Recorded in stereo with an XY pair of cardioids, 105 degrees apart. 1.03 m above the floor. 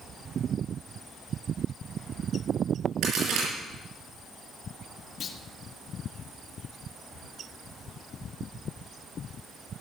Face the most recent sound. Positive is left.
turn(degrees=50)